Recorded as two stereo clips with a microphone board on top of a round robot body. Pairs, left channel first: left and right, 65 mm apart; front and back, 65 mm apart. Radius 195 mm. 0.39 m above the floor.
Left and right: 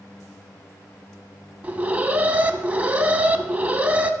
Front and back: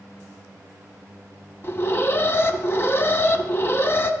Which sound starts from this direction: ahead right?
An alarm, at 1.6 s.